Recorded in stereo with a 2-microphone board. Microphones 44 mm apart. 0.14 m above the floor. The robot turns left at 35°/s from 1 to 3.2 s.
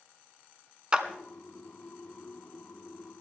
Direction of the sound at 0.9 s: 20° right (ahead or behind).